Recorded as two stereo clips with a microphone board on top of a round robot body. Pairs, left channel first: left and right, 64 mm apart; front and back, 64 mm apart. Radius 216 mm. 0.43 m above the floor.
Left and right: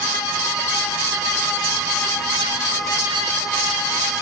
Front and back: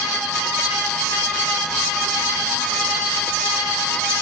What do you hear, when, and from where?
Only background noise.